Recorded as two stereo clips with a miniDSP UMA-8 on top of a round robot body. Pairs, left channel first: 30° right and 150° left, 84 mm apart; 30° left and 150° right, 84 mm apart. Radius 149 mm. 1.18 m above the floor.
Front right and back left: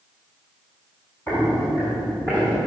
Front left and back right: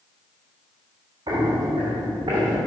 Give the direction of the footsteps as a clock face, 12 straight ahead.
3 o'clock.